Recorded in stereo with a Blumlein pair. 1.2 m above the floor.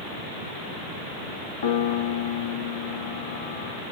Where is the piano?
50° left, 0.7 m.